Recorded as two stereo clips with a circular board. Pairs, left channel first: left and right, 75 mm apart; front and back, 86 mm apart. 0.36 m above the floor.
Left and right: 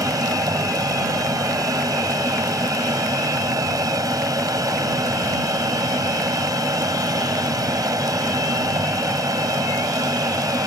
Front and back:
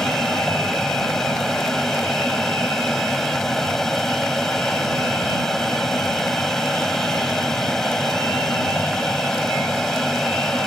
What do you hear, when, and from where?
0.0 s an aircraft: 85° right